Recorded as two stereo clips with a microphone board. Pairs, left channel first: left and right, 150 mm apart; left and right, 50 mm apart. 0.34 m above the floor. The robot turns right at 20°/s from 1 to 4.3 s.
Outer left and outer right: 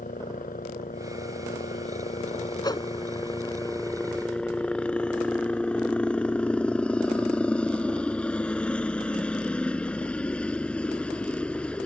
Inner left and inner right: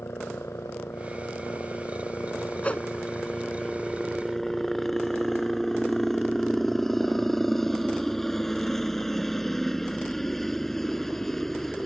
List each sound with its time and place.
0.0 s a helicopter: 105° left; by 11.9 s 170° left
2.6 s a whoosh: 25° left (ahead or behind)